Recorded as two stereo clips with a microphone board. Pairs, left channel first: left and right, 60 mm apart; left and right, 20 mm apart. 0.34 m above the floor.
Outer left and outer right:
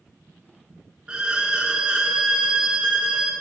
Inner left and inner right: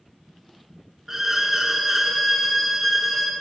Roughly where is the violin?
Centre.